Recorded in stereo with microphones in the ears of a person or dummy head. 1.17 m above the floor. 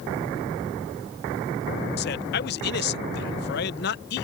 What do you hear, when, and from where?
2.0 s a man speaking: 55° left (ahead or behind)